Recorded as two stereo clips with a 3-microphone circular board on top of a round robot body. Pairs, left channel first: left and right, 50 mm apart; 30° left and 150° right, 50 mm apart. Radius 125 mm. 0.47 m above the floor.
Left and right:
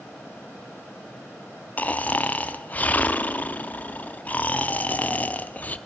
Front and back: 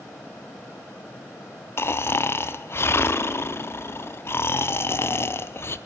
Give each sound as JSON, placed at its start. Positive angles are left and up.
{"t": 1.8, "sound": "snoring", "azimuth_deg": 40, "distance_m": 0.5}